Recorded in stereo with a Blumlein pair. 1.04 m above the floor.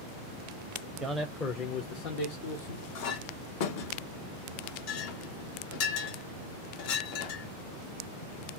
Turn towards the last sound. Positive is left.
turn(degrees=45)